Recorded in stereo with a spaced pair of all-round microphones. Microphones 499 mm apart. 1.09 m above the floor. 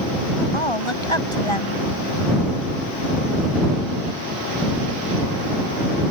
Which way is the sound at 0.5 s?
75° left (ahead or behind).